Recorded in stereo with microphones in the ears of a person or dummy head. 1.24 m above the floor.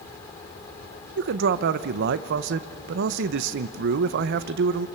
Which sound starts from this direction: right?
A man speaking, at 1.2 s.